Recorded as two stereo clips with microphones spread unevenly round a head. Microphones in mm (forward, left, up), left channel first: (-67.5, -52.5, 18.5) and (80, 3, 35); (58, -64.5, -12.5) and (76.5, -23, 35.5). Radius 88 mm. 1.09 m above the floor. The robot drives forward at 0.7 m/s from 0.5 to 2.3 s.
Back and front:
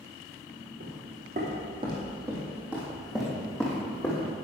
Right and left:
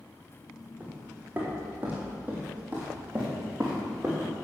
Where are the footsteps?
50° left, 3.5 m; by 4.3 s 120° left, 3.5 m.